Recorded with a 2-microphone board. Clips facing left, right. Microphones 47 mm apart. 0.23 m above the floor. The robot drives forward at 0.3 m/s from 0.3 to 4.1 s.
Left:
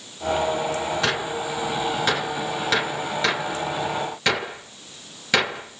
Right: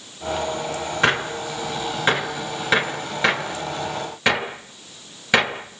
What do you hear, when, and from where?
1.0 s a gunshot: 30° right (ahead or behind), 1.2 m; by 5.8 s 20° right (ahead or behind), 2 m